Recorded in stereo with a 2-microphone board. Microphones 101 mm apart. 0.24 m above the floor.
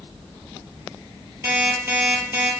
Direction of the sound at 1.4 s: 20° right (ahead or behind).